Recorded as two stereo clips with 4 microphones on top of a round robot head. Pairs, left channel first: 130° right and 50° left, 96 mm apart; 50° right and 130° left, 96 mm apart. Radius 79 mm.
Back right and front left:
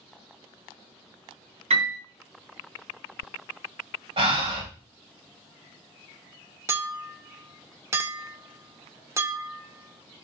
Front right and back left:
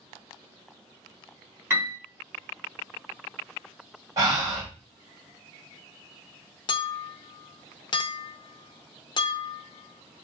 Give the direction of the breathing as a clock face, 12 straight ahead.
9 o'clock.